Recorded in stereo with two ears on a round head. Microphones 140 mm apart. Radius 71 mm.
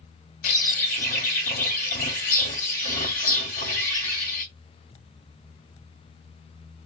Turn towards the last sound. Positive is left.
turn(degrees=60)  # may be behind; listen again after turning